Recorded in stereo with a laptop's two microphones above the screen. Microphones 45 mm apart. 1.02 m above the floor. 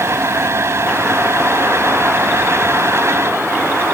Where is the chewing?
No chewing in this recording.